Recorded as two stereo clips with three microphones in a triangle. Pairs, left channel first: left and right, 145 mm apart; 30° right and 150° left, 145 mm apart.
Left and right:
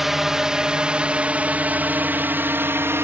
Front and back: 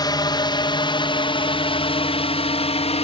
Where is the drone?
5° right; by 3.0 s 25° right.